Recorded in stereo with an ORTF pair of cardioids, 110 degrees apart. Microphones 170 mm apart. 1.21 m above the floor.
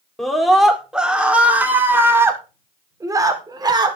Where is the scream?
Straight ahead, 4.5 m; by 4.0 s 25° right, 5 m.